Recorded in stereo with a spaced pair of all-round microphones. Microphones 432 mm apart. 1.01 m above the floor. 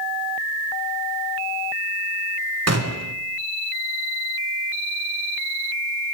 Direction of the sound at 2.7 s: 35° right (ahead or behind).